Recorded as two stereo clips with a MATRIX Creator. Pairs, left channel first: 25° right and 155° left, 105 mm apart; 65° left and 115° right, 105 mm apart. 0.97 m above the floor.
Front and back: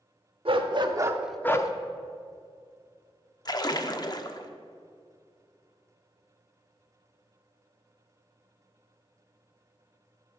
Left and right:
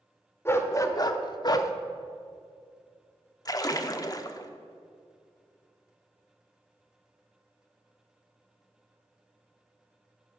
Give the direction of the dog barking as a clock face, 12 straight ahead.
8 o'clock.